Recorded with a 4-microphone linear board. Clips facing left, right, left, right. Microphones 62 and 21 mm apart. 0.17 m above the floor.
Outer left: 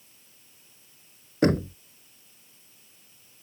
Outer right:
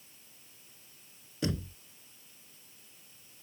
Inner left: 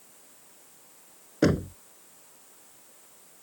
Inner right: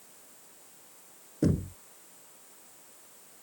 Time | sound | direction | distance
1.4 | knocking | 55° left (ahead or behind) | ?